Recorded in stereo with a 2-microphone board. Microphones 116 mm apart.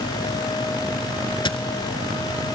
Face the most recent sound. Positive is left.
turn(degrees=45)  # may be behind; listen again after turning